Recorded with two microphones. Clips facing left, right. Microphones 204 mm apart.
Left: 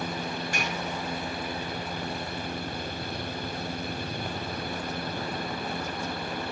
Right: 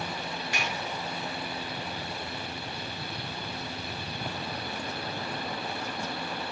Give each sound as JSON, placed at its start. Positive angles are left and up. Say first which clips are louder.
{"t": 0.5, "sound": "dishes clattering", "louder": "left 2 dB", "side_deg": 45, "distance_m": 4.0}